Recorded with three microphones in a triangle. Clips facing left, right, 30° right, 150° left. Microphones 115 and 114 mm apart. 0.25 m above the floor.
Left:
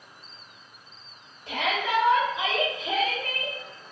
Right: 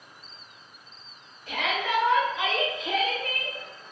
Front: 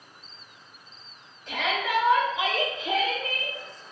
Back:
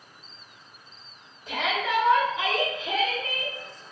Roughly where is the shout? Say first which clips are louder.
Left 1 dB, back 1 dB; left.